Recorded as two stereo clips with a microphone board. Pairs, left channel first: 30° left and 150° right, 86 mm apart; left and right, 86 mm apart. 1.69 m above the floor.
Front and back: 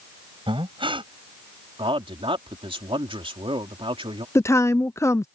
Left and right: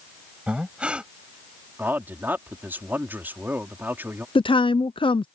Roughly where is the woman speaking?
Left.